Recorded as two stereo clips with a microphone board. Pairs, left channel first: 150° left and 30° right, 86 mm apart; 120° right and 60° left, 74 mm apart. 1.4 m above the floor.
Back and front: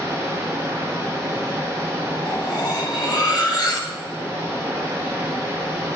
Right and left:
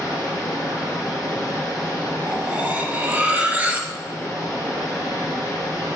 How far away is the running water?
About 3 m.